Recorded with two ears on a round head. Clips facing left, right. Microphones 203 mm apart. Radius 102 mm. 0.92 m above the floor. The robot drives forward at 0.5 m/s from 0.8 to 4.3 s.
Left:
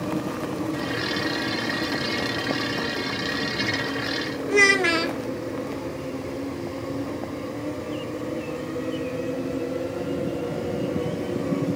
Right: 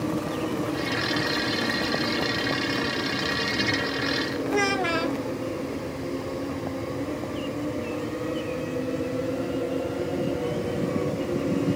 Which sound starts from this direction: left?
A child speaking, at 4.5 s.